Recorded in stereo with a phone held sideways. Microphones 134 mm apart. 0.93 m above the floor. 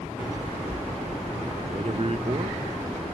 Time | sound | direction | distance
1.6 | a man speaking | 45° right (ahead or behind) | 0.6 m